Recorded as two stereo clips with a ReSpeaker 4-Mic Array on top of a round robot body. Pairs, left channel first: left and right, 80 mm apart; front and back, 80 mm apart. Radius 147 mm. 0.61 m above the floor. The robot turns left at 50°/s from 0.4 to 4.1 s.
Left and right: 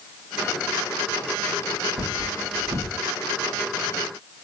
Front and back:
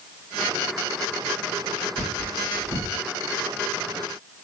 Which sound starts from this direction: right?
Cutlery clinking, at 2.0 s.